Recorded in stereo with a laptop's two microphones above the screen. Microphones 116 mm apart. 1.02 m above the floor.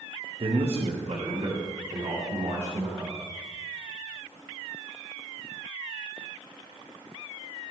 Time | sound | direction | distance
0.4 | a man speaking | 50° right (ahead or behind) | 0.7 m